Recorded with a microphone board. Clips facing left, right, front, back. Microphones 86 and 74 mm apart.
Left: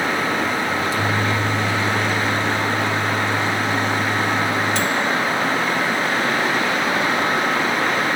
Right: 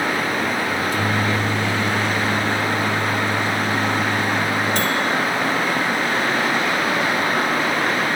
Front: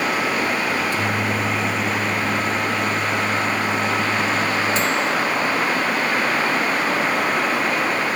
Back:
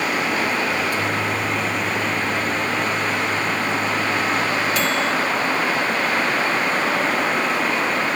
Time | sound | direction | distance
0.7 | a microwave | 55° right | 2.5 m